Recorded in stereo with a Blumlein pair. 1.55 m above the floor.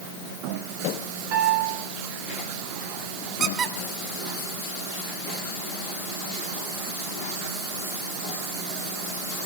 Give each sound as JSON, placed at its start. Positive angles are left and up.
{"t": 1.3, "sound": "a piano", "azimuth_deg": -40, "distance_m": 6.5}
{"t": 3.4, "sound": "a squeak", "azimuth_deg": -25, "distance_m": 3.5}